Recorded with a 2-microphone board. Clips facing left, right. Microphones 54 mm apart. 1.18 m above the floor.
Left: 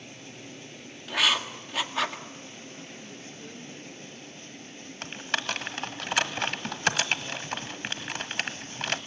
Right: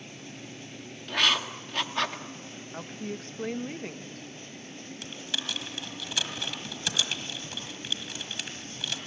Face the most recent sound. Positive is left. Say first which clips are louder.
# left 6 dB
turn(degrees=50)  # may be behind; listen again after turning